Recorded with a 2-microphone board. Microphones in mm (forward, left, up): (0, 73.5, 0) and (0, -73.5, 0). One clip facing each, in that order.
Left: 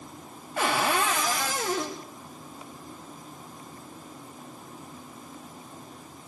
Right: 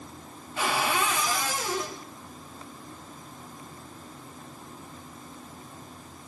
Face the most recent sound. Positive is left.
turn(degrees=55)  # may be behind; listen again after turning